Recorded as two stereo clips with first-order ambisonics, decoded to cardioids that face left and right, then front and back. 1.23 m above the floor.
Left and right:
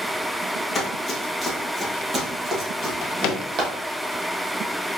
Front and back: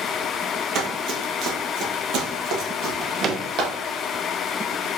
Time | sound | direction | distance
0.8 | running footsteps | 160° left | 1.7 m
2.8 | a drawer | 120° left | 0.7 m